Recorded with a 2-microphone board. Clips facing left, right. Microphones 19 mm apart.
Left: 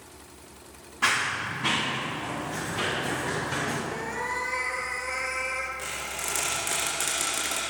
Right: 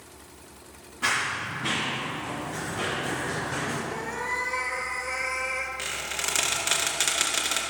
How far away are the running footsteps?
About 2.5 m.